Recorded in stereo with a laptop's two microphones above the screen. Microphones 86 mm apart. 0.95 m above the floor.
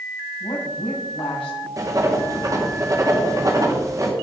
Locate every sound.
0.4 s a woman speaking: 80° left, 6 m
1.8 s writing: 35° right (ahead or behind), 1.7 m